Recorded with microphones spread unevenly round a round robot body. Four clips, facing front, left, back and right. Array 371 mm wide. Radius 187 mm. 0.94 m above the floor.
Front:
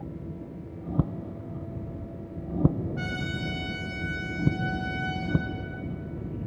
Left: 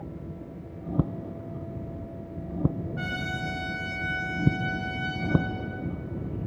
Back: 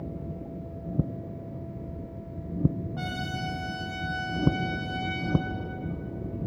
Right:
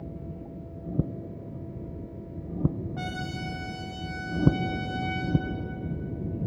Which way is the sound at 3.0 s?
70° right.